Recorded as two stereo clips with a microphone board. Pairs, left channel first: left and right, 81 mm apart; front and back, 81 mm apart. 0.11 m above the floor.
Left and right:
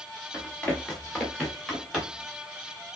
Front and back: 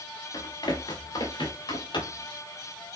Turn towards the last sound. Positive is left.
turn(degrees=0)